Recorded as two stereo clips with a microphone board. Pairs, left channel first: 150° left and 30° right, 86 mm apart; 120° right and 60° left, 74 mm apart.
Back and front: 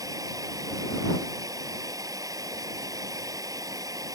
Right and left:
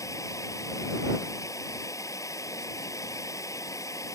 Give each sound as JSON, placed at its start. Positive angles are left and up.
{"t": 0.0, "sound": "running water", "azimuth_deg": -75}